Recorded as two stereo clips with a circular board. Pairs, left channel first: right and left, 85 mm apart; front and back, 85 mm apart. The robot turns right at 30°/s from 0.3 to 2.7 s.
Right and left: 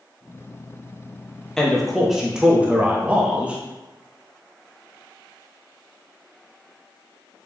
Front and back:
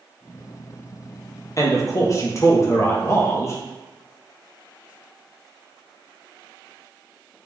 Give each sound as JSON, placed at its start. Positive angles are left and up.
{"t": 1.6, "sound": "a man speaking", "azimuth_deg": -10, "distance_m": 0.6}